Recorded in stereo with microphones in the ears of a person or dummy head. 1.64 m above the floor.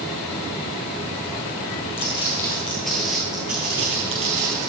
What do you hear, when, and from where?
2.0 s footsteps: 25° left (ahead or behind), 2 m; by 4.7 s 40° right (ahead or behind), 2 m